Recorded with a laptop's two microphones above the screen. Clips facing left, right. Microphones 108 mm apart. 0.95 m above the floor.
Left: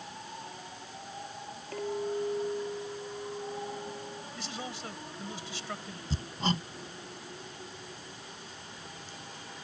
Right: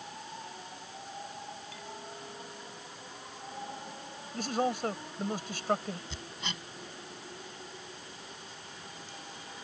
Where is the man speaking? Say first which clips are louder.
Right 14 dB; 50° right (ahead or behind).